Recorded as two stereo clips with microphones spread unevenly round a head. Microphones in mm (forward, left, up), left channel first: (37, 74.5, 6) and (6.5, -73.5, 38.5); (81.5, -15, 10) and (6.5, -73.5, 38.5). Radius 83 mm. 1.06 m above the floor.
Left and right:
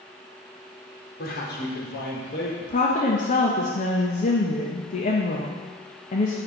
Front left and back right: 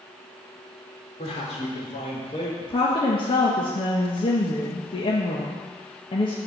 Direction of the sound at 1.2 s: 55° left.